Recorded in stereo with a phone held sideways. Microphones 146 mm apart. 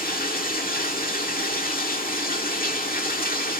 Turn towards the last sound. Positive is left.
turn(degrees=80)